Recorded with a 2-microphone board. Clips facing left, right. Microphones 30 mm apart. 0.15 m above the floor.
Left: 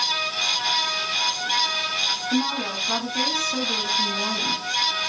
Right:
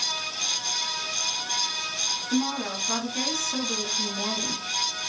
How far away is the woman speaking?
About 1.5 m.